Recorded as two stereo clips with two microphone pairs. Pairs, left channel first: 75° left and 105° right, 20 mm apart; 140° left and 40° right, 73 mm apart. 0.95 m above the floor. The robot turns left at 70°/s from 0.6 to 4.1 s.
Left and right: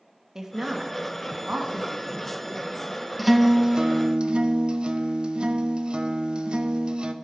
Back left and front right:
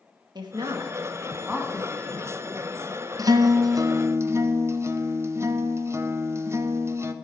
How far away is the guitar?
About 0.6 m.